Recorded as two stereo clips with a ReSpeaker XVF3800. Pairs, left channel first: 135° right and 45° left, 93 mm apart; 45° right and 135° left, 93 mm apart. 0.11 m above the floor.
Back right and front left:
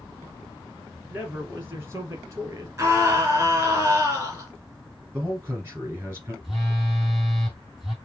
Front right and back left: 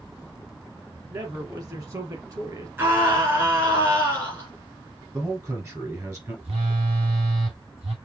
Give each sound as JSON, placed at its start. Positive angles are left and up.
{"t": 1.1, "sound": "a man speaking", "azimuth_deg": 115, "distance_m": 2.0}
{"t": 2.8, "sound": "a scream", "azimuth_deg": 90, "distance_m": 2.0}
{"t": 5.1, "sound": "a man speaking", "azimuth_deg": 100, "distance_m": 2.0}
{"t": 6.4, "sound": "a phone buzzing", "azimuth_deg": 130, "distance_m": 3.0}